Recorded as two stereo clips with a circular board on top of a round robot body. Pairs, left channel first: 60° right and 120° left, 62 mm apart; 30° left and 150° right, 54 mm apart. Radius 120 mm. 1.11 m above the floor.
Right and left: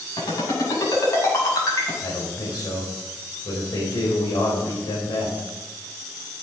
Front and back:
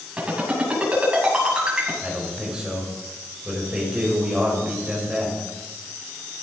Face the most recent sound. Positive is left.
turn(degrees=-75)